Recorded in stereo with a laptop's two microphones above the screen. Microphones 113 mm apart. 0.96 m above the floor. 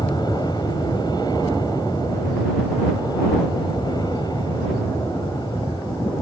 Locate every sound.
0.0 s an aircraft: 40° left (ahead or behind)